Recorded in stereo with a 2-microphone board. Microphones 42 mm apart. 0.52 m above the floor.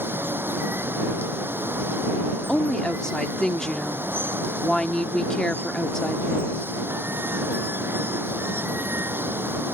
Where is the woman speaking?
15° left (ahead or behind).